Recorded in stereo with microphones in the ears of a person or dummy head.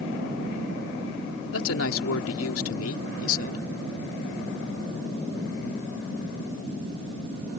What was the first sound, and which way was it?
A woman speaking, 80° left.